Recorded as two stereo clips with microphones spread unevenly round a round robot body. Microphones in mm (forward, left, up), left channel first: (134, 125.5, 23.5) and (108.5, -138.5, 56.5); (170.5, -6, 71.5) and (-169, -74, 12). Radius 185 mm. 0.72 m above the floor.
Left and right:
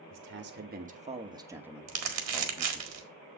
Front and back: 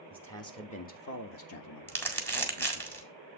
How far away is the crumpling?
About 1.9 m.